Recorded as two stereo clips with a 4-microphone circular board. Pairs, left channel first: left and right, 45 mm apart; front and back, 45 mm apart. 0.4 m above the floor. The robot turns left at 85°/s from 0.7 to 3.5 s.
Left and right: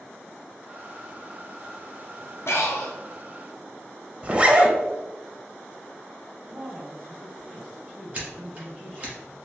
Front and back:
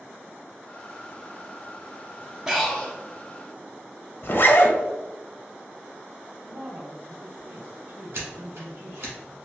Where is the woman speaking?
160° right, 1.9 m.